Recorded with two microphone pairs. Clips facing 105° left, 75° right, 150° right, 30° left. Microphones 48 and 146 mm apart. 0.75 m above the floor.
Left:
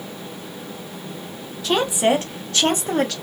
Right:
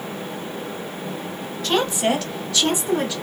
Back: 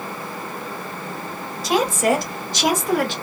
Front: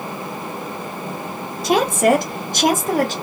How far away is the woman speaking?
About 1.1 m.